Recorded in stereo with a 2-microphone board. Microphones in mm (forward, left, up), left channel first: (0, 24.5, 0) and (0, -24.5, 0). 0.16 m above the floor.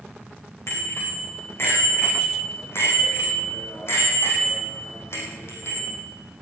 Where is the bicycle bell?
55° left (ahead or behind), 7 m.